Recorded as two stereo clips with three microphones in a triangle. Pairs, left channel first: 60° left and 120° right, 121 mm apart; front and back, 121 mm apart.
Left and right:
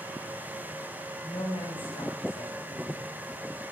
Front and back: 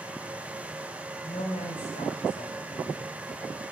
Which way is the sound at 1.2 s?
15° left.